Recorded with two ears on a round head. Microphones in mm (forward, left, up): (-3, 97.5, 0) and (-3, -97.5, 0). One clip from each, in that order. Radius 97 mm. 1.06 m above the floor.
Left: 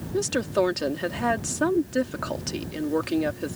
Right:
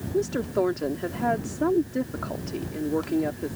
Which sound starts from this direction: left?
A woman speaking, at 0.1 s.